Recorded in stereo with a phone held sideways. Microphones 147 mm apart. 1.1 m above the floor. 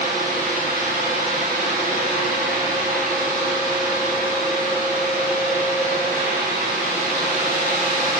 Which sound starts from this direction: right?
A fan, at 0.0 s.